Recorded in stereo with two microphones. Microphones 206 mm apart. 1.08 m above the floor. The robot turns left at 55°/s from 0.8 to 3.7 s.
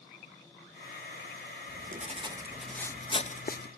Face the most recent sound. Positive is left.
turn(degrees=120)